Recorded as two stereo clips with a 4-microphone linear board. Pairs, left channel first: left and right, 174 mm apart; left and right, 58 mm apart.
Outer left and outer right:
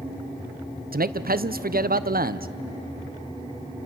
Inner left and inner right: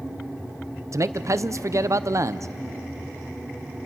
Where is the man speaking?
60° right (ahead or behind), 0.6 m.